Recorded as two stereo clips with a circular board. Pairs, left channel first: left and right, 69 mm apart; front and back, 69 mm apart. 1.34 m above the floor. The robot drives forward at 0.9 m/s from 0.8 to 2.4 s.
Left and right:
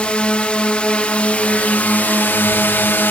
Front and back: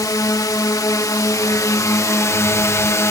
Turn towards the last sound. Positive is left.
turn(degrees=35)